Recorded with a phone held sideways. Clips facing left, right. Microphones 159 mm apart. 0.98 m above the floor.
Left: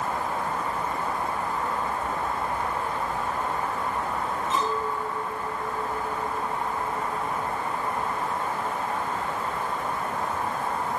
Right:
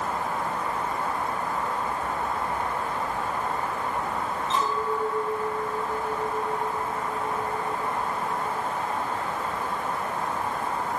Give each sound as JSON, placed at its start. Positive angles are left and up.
{"t": 4.5, "sound": "a clink", "side_deg": 15, "distance_m": 7.0}